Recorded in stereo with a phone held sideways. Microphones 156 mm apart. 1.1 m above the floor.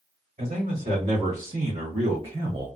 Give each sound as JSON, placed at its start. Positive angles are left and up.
{"t": 0.4, "sound": "a man speaking", "side_deg": -55, "distance_m": 1.8}